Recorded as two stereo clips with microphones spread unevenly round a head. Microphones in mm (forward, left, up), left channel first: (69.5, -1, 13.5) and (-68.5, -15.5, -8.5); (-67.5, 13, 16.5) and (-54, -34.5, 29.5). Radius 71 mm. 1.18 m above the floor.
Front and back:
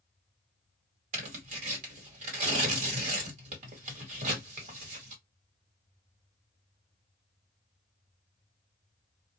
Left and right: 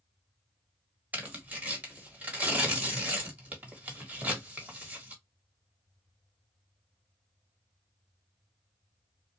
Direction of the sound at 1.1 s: 135° right.